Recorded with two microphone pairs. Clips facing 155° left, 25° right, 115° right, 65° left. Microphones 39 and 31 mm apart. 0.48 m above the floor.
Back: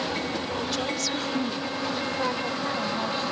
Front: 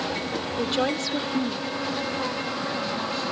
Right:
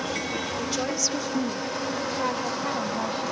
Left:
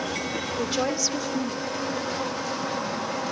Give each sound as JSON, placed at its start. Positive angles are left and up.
{"t": 0.6, "sound": "a woman speaking", "azimuth_deg": 15}